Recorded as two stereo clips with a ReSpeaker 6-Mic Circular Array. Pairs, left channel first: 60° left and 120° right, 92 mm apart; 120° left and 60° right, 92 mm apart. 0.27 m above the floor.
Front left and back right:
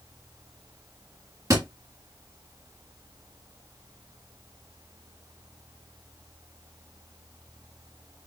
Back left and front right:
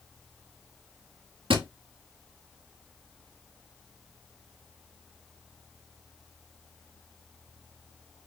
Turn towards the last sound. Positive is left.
turn(degrees=-70)